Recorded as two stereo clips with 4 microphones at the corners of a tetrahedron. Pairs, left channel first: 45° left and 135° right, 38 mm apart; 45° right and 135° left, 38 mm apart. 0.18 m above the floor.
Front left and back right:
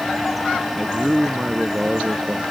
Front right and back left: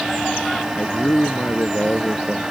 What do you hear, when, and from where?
0.8 s a man speaking: 55° right; by 2.4 s 90° right